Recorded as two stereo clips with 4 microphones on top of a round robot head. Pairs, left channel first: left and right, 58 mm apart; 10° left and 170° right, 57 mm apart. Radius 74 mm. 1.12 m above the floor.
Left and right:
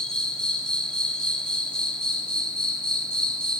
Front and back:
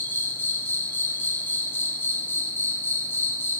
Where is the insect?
25° left, 1.3 m.